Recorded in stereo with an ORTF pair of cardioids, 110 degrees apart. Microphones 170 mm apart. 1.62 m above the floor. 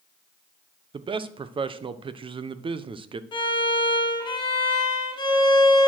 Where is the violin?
25° left, 2.5 m.